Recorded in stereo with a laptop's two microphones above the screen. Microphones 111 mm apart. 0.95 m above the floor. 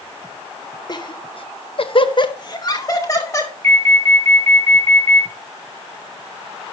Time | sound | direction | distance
0.9 | laughter | 40° left (ahead or behind) | 0.8 m
3.6 | an alarm | 70° right (ahead or behind) | 6 m